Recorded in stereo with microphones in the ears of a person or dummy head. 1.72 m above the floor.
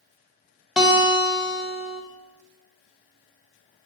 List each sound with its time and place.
0.8 s a guitar: 5° right (ahead or behind), 0.6 m